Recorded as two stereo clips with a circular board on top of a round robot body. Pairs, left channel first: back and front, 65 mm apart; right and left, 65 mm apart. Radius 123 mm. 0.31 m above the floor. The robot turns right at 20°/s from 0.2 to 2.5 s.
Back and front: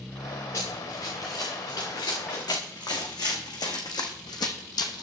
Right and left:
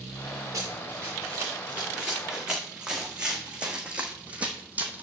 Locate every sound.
0.5 s running footsteps: 130° left, 3.5 m; by 5.0 s 155° left, 1.2 m